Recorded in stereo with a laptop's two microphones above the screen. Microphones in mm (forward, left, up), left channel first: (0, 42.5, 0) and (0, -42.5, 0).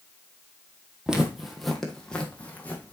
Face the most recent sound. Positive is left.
turn(degrees=20)  # may be behind; listen again after turning